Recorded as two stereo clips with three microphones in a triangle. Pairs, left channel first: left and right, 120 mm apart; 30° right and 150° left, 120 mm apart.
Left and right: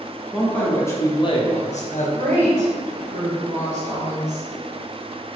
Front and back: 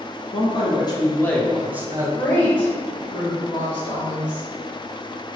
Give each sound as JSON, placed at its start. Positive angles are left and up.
{"t": 0.3, "sound": "a man speaking", "azimuth_deg": 0, "distance_m": 1.1}
{"t": 2.2, "sound": "a woman speaking", "azimuth_deg": -90, "distance_m": 1.0}